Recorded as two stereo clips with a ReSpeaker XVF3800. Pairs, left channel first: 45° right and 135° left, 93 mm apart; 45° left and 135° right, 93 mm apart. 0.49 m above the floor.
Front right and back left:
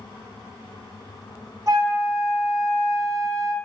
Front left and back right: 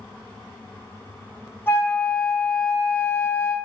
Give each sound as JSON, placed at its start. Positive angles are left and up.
{"t": 1.7, "sound": "a flute", "azimuth_deg": 100, "distance_m": 1.4}